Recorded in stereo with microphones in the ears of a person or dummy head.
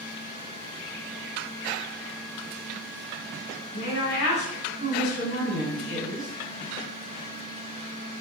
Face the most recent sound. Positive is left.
turn(degrees=55)  # may be behind; listen again after turning